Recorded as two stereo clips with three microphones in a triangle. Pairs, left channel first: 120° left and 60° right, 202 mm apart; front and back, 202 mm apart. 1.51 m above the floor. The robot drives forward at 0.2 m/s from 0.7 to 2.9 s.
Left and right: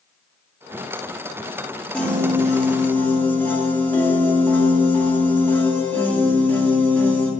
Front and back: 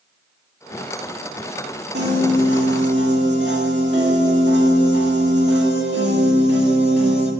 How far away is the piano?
About 1.8 m.